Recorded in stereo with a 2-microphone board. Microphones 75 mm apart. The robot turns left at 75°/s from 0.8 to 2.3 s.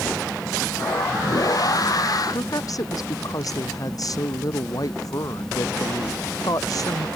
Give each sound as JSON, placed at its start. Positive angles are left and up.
{"t": 2.3, "sound": "a woman speaking", "side_deg": 55}